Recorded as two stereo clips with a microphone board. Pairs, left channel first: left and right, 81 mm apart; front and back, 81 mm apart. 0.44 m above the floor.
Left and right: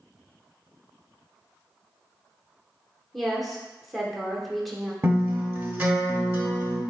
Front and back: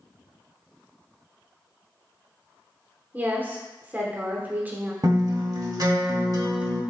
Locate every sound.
3.1 s a woman speaking: straight behind, 0.8 m
5.0 s a guitar: 155° right, 0.9 m